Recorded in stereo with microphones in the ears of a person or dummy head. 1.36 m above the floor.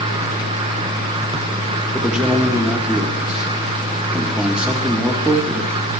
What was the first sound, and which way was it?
A man speaking, 10° right (ahead or behind).